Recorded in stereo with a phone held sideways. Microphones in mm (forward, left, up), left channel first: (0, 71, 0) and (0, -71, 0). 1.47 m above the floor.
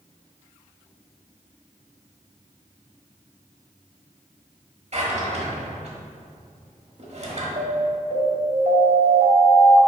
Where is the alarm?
70° right (ahead or behind), 2 m.